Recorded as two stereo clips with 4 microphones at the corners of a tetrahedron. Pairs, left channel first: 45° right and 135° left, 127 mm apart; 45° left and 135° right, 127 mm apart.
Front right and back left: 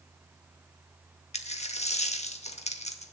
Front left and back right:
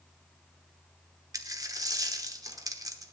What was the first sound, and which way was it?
A dropped coin, 75° right.